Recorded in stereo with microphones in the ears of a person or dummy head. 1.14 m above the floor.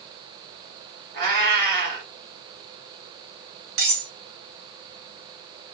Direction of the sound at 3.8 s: 65° right (ahead or behind).